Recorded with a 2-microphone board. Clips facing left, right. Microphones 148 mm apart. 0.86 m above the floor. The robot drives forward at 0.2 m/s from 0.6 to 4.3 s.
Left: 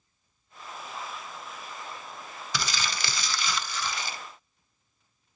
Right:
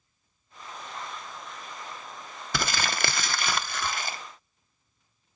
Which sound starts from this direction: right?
Crumpling, at 2.5 s.